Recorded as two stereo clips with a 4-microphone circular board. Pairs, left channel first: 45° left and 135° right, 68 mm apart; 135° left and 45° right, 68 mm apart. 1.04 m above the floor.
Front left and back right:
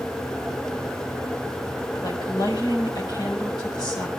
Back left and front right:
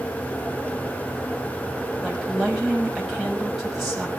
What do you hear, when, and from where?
2.0 s a woman speaking: 40° left, 6 m